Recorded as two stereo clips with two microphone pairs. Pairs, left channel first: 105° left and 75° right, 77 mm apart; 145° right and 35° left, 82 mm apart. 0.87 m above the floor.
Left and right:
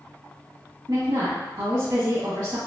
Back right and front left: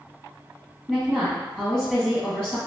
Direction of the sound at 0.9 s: 60° right.